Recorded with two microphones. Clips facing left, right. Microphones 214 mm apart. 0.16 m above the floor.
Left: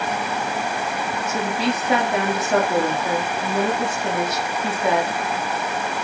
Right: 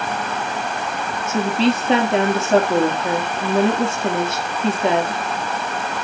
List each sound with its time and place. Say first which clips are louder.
1.3 s a woman speaking: right 6 dB; 25° right (ahead or behind), 4 m